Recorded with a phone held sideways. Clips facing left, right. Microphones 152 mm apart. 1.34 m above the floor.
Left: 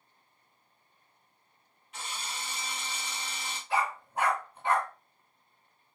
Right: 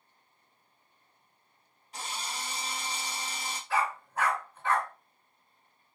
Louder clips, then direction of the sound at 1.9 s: Right 2 dB; 35° right (ahead or behind).